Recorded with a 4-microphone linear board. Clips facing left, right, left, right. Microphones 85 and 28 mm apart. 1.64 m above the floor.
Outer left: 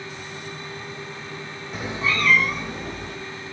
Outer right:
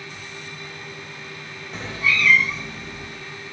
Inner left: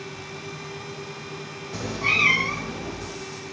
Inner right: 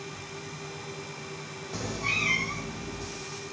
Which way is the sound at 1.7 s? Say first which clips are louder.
Outer right 1 dB, inner left 7 dB; 5° left (ahead or behind).